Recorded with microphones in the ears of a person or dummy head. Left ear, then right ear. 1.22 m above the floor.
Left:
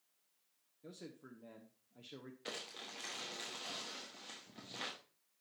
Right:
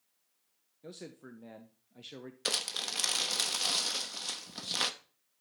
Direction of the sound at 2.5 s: 60° right (ahead or behind).